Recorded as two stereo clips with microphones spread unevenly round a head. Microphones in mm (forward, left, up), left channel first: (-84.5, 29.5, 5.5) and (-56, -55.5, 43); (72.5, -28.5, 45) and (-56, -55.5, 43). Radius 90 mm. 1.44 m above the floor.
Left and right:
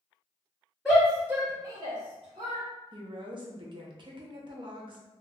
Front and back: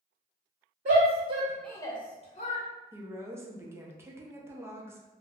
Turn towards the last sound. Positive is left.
turn(degrees=-95)